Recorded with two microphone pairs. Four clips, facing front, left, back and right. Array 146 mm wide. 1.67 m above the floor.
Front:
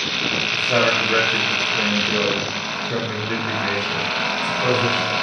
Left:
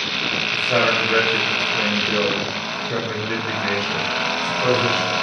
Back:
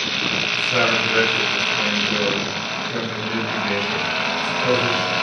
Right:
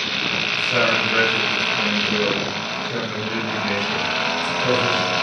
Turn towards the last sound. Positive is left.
turn(degrees=55)